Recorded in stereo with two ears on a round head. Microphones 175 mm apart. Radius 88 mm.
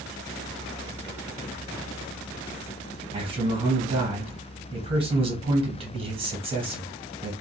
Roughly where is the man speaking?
Right.